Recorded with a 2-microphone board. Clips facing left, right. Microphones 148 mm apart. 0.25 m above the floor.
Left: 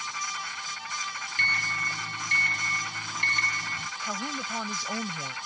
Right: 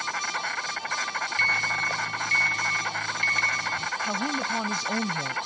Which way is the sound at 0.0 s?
65° right (ahead or behind).